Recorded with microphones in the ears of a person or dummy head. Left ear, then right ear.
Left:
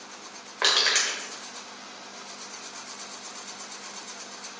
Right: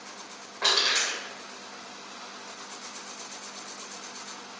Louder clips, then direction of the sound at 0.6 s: Left 2 dB; 50° left (ahead or behind).